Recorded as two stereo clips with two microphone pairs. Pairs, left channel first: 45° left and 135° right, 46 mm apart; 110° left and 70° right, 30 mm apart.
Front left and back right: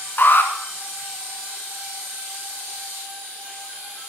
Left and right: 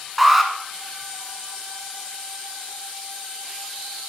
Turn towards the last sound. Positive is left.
turn(degrees=20)